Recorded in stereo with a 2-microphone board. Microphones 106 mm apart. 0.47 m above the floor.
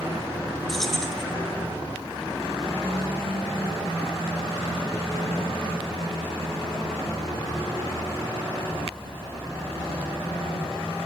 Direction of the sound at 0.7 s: Centre (ahead or behind).